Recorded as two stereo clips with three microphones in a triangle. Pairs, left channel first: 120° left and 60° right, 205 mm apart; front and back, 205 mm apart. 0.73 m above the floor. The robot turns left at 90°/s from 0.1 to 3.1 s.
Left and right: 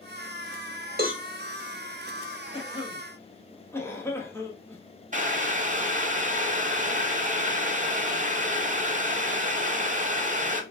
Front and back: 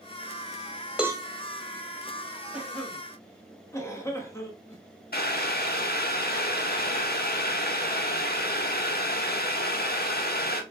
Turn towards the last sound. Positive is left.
turn(degrees=-20)